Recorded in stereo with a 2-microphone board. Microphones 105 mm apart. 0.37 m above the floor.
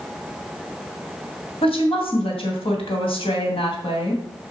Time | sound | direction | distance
1.6 | a woman speaking | 65° left (ahead or behind) | 2.5 m